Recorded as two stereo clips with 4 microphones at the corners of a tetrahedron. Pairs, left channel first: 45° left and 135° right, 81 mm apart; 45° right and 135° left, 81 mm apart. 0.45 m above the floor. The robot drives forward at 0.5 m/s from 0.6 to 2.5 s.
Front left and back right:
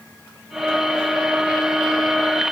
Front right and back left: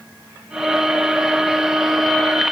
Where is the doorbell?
I don't hear a doorbell.